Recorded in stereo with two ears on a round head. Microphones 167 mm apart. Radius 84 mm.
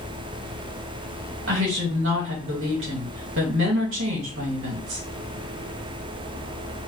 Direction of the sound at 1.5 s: 75° right (ahead or behind).